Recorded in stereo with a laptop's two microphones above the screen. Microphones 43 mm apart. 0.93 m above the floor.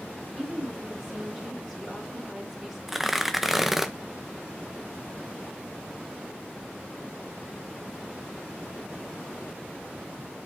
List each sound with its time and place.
0.3 s a woman speaking: 20° right (ahead or behind), 2.5 m
2.9 s tearing paper: 5° right (ahead or behind), 0.6 m